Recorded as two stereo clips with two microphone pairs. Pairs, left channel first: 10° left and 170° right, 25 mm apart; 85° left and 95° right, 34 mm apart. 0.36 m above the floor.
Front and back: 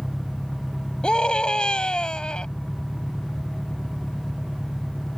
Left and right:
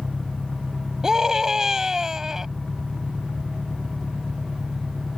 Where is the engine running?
45° right.